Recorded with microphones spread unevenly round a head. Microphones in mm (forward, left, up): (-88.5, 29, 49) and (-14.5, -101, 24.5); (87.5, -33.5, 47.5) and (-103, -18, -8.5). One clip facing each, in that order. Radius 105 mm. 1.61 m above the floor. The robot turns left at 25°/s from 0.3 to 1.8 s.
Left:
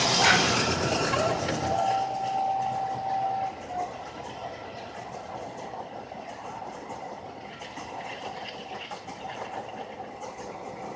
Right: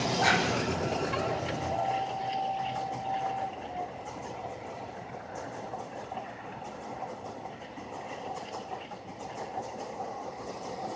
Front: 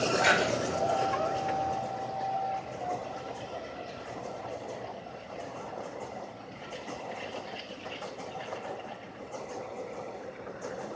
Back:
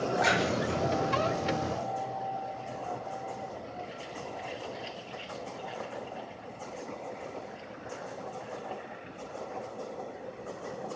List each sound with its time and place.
0.2 s a splash: 85° left, 3.5 m; by 2.0 s 45° left, 3.5 m